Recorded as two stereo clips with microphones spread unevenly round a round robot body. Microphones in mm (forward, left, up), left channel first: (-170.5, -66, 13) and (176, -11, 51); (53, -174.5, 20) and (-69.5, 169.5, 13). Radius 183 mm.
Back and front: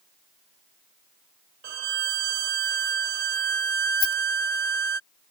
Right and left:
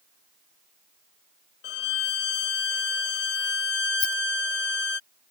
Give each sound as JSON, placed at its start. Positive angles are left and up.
{"t": 1.6, "sound": "a violin", "azimuth_deg": -10}
{"t": 4.0, "sound": "a rattle", "azimuth_deg": -105}